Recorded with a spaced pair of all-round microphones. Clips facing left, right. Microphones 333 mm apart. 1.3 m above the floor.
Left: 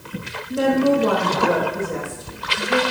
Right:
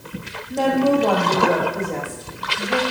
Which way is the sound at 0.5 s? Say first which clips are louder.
Left 1 dB; 15° left (ahead or behind).